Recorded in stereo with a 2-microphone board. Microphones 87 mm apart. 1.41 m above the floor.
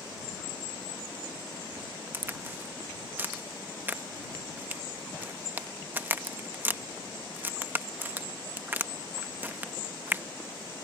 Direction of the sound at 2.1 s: 20° right (ahead or behind).